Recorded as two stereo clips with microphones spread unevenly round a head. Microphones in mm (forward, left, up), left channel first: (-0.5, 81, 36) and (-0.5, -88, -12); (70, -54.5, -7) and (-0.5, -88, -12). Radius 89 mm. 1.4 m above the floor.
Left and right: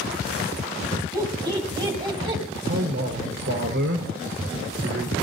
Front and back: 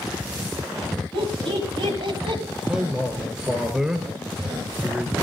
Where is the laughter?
160° right, 8 m; by 2.4 s 150° right, 7.5 m.